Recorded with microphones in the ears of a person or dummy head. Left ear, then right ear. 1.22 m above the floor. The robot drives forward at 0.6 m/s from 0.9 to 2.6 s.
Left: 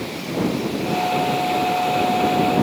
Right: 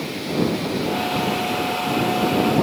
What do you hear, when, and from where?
Only background noise.